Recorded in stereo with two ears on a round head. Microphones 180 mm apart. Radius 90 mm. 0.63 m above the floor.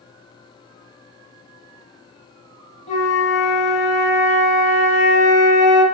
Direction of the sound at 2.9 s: 35° left (ahead or behind).